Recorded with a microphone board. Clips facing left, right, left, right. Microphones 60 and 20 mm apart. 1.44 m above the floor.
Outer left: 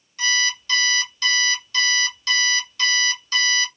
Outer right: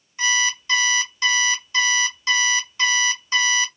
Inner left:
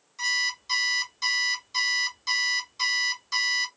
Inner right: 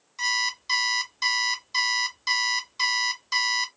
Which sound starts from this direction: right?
An alarm clock, at 0.2 s.